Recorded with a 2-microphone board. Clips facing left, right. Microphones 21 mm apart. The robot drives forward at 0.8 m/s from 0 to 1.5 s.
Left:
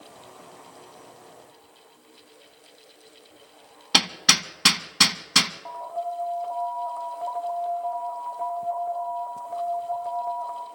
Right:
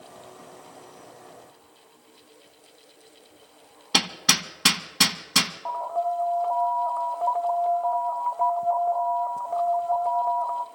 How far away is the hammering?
About 0.8 m.